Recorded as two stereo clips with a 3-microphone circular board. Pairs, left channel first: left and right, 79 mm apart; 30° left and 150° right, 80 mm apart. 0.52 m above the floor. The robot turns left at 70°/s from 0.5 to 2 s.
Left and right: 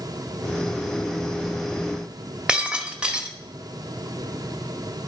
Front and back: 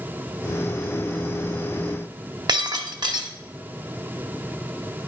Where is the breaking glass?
170° right, 1.5 m.